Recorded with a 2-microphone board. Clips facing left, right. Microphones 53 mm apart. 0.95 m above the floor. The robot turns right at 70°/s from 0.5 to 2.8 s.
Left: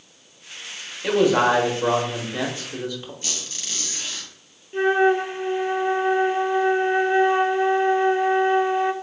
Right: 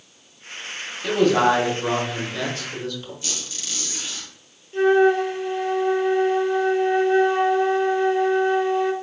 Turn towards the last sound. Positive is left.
turn(degrees=20)  # may be behind; listen again after turning